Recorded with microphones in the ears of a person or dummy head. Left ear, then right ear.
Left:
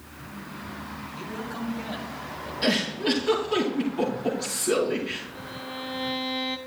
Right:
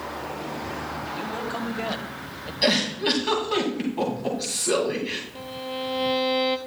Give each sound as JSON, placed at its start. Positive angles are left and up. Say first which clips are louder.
{"t": 1.1, "sound": "a man speaking", "louder": "right 3 dB", "side_deg": -35, "distance_m": 1.7}
{"t": 2.6, "sound": "a giggle", "louder": "right 3 dB", "side_deg": -20, "distance_m": 2.5}
{"t": 5.3, "sound": "a violin", "louder": "right 4 dB", "side_deg": -5, "distance_m": 0.6}